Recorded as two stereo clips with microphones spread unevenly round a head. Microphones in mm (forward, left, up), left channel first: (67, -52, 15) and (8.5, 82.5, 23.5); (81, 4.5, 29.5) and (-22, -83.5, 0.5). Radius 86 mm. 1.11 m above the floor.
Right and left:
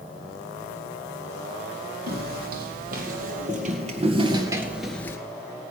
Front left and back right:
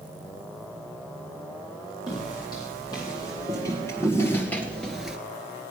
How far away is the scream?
No scream in this recording.